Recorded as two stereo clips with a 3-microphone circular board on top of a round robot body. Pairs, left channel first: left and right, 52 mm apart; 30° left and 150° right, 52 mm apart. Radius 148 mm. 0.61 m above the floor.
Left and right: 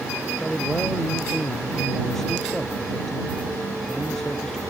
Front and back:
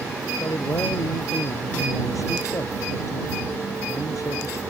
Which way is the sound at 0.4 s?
5° left.